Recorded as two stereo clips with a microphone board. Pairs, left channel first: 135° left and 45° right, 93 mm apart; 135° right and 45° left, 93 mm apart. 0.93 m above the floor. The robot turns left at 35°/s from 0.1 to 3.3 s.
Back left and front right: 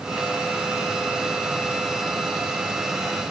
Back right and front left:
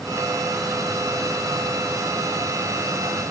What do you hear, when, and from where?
Only background noise.